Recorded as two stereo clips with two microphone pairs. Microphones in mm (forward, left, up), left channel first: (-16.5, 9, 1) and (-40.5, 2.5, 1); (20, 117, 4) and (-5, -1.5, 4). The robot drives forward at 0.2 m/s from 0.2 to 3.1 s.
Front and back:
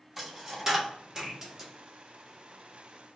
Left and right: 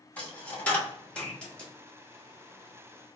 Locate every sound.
0.2 s a dropped coin: 125° left, 1.1 m; by 1.7 s 145° left, 1.2 m